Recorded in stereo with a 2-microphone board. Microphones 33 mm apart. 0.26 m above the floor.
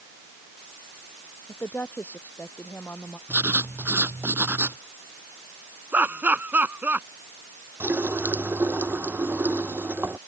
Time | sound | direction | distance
1.5 | a woman speaking | 70° left (ahead or behind) | ?
3.3 | writing | 85° right | ?
5.9 | laughter | 60° right (ahead or behind) | ?
7.8 | a running tap | 80° right | ?